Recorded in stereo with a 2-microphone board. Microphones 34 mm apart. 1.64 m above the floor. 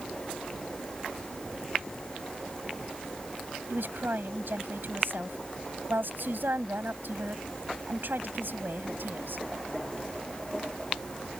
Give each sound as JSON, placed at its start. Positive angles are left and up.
{"t": 3.7, "sound": "a woman speaking", "side_deg": -75}